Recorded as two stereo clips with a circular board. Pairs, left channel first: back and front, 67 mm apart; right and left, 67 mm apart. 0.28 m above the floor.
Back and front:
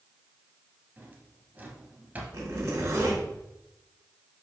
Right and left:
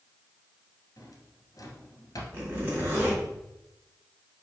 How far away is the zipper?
About 3 m.